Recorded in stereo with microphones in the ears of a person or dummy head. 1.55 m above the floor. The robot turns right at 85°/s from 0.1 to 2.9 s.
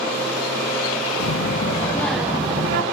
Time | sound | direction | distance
1.2 | a child speaking | 100° left | 2 m